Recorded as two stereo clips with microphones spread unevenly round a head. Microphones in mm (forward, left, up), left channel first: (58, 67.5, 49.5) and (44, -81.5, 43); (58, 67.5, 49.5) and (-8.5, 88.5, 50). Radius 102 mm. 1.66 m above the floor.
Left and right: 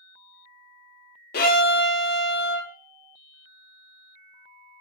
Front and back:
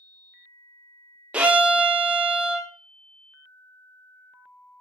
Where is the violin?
90° left, 0.5 m.